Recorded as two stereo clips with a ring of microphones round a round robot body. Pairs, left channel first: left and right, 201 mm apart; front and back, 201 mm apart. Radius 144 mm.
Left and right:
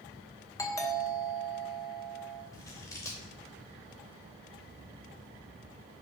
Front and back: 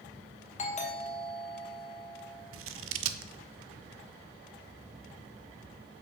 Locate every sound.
0.6 s a doorbell: 25° left, 1.7 m
2.5 s scissors: 170° left, 0.6 m